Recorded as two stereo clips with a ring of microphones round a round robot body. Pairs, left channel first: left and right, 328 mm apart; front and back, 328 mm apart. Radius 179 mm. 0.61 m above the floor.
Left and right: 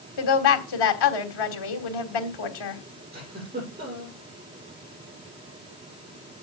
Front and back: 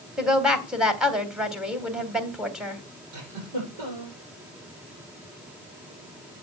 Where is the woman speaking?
90° left, 3 m.